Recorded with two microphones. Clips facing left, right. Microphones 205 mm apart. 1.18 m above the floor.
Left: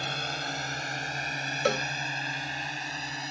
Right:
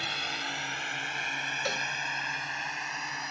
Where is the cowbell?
70° left (ahead or behind).